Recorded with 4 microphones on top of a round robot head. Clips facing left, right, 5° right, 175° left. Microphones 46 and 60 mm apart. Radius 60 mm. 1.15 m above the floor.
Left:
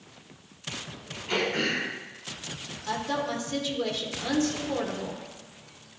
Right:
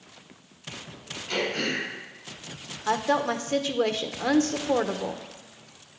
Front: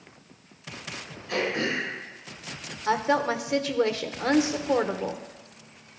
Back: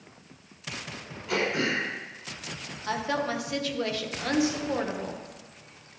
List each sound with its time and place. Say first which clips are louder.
1.3 s throat clearing: left 1 dB, even; 170° left, 5.5 m
2.9 s a woman speaking: right 5 dB, front 5 dB; 65° right, 1.0 m